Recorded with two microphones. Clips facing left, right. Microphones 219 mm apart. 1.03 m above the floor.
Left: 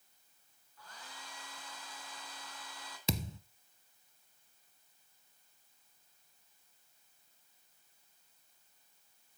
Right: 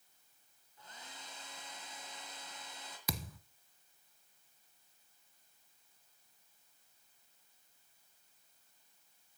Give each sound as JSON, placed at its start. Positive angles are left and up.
{"t": 0.8, "sound": "a hair dryer", "side_deg": -20, "distance_m": 3.5}
{"t": 3.1, "sound": "a thud", "side_deg": 25, "distance_m": 1.0}